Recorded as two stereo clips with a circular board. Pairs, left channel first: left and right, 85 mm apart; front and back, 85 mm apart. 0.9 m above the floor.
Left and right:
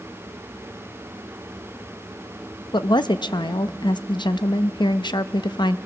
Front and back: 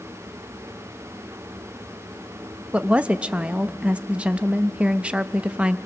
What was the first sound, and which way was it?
A woman speaking, 105° left.